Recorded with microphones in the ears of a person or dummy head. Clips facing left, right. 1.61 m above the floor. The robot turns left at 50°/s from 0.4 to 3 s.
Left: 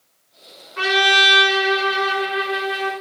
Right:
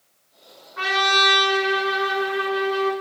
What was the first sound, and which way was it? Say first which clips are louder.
A trumpet: left 4 dB; 140° left.